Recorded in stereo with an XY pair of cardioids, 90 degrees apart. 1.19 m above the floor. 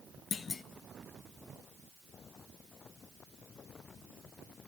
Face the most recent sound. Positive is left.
turn(degrees=50)